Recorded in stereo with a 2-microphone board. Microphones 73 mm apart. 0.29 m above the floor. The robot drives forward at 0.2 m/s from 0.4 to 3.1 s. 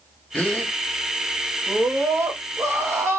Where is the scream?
40° right (ahead or behind), 1.1 m; by 3.2 s 35° right (ahead or behind), 1.2 m.